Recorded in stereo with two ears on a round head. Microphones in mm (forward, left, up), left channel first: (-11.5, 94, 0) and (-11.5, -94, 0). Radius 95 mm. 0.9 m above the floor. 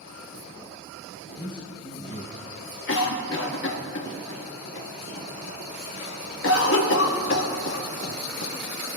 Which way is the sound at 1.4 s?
20° left (ahead or behind).